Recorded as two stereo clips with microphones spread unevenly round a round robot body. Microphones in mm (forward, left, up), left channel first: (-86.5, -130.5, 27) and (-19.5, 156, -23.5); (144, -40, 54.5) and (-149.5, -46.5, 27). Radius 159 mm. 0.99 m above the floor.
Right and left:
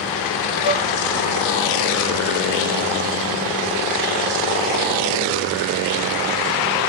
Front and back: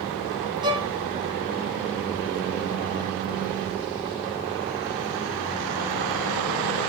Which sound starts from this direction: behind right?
A violin, at 0.6 s.